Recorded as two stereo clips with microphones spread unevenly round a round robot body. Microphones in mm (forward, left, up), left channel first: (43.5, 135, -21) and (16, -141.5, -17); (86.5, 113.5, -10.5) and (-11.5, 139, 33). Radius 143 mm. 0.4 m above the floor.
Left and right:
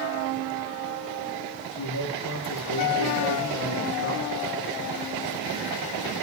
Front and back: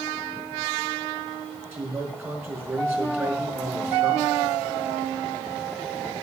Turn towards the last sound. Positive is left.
turn(degrees=95)